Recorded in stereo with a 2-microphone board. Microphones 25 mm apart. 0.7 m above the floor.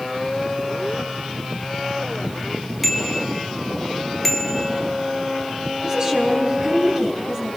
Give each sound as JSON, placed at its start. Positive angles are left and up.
{"t": 2.8, "sound": "a bicycle bell", "side_deg": 10, "distance_m": 4.0}
{"t": 5.8, "sound": "a woman speaking", "side_deg": -15, "distance_m": 6.5}